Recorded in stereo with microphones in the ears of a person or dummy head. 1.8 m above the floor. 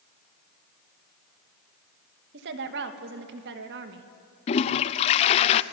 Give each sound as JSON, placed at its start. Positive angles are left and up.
{"t": 2.3, "sound": "a woman speaking", "side_deg": -60, "distance_m": 2.5}
{"t": 4.5, "sound": "a toilet flushing", "side_deg": 35, "distance_m": 0.7}